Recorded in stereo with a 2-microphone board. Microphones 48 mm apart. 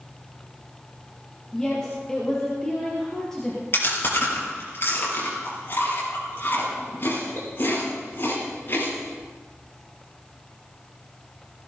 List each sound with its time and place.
1.5 s a woman speaking: 10° left (ahead or behind), 5 m
3.7 s chewing: 45° left (ahead or behind), 5.5 m